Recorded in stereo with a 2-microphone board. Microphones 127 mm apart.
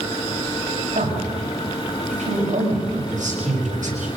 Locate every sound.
0.9 s a man speaking: 75° right (ahead or behind), 6.5 m